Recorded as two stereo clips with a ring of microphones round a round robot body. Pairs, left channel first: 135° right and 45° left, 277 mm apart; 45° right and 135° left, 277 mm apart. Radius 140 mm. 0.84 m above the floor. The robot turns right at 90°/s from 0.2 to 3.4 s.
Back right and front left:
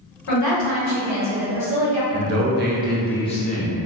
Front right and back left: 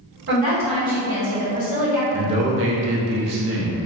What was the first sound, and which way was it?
A woman speaking, 175° right.